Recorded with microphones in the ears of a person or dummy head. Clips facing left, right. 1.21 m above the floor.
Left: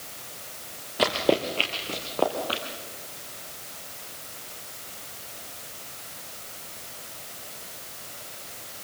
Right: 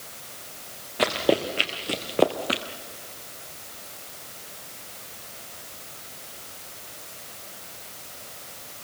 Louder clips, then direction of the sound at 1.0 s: Right 1 dB; 5° left (ahead or behind).